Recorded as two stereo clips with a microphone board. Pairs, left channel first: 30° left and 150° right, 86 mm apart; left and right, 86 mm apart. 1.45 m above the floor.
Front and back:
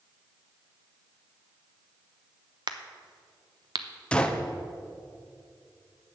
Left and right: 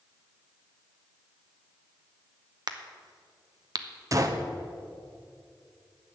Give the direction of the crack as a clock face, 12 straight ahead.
4 o'clock.